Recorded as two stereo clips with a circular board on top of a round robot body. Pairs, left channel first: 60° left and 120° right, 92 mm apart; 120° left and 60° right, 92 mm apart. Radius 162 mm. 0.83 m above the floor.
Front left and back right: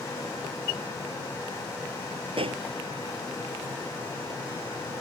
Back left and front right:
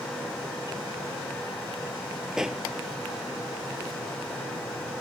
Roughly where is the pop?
Behind right.